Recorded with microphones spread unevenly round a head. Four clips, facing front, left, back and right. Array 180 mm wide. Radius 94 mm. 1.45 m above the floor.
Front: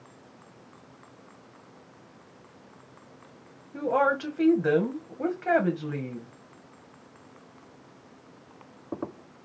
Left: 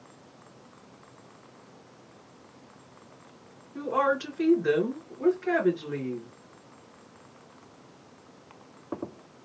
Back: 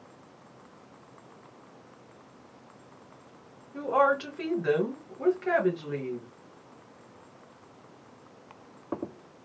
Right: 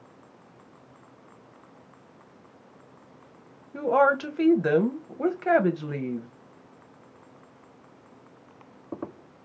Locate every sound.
3.7 s a woman speaking: 75° right, 1.5 m